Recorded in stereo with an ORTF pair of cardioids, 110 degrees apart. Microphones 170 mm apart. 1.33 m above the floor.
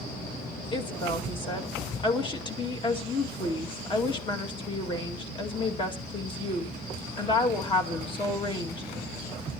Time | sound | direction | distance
0.7 | a woman speaking | 30° left | 2.5 m